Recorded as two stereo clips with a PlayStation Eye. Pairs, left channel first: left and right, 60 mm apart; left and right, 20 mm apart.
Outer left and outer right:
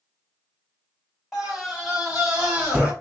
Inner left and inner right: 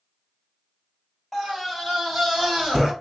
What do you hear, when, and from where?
1.3 s a scream: 5° right (ahead or behind), 3 m; by 2.9 s 20° right (ahead or behind), 2.5 m